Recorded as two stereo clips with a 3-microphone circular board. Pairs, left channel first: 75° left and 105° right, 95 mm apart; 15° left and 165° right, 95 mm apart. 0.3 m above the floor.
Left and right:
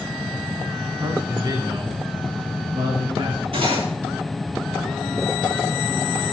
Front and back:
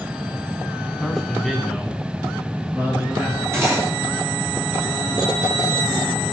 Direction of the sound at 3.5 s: 100° right.